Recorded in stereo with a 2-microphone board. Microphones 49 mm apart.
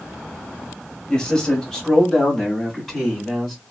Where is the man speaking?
15° left (ahead or behind), 1.3 m; by 3.6 s centre (ahead or behind), 2 m.